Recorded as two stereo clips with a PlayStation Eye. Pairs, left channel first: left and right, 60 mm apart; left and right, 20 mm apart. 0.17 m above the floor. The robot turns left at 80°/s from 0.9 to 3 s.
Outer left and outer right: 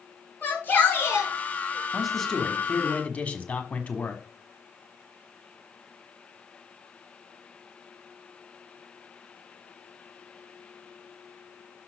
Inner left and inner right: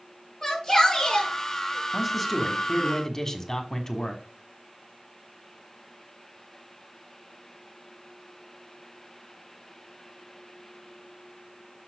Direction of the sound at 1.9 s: 5° right (ahead or behind).